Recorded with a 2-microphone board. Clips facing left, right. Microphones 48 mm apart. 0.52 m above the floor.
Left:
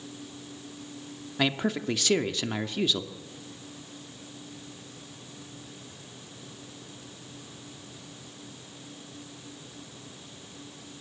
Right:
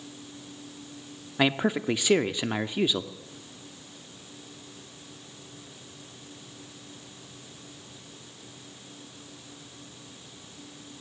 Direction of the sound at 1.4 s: 15° right (ahead or behind).